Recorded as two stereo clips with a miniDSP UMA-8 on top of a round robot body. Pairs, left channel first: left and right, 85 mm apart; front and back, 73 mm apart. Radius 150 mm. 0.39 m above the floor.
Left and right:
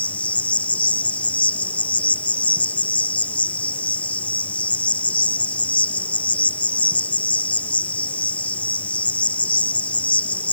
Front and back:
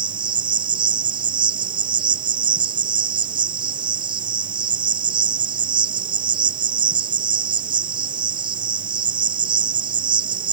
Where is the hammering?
I don't hear hammering.